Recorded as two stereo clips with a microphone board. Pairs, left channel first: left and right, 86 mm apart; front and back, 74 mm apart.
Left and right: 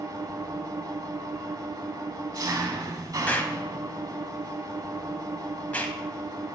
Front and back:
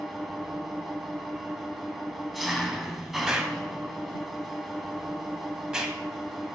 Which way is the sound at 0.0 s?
95° right.